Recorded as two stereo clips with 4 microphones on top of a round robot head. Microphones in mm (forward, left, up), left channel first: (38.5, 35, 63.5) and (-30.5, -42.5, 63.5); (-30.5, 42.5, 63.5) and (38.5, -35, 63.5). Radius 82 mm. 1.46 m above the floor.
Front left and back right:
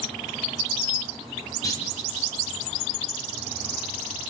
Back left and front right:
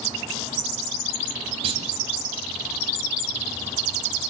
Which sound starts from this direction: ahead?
A clunk, at 1.6 s.